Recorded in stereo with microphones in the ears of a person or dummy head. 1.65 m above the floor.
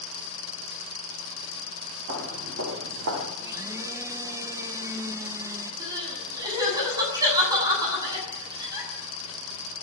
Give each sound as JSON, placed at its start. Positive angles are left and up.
{"t": 2.1, "sound": "footsteps", "side_deg": -55, "distance_m": 6.0}
{"t": 3.4, "sound": "a blender", "side_deg": -15, "distance_m": 1.5}
{"t": 5.8, "sound": "crying", "side_deg": -20, "distance_m": 8.0}